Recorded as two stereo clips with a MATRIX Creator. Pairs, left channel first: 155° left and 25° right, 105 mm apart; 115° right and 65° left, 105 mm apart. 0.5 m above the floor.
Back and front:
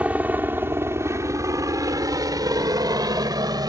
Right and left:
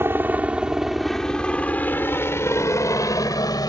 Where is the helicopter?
35° left; by 3.7 s 70° right.